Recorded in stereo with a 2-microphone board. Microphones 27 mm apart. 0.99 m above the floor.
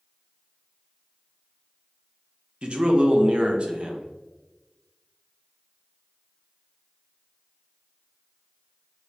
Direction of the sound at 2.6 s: 45° right (ahead or behind).